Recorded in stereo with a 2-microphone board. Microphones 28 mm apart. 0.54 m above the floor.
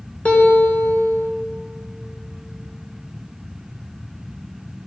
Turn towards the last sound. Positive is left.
turn(degrees=60)  # may be behind; listen again after turning